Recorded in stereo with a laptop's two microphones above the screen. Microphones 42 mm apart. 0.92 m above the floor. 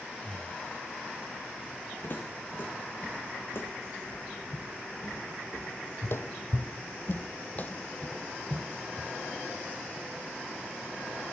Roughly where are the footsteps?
Left.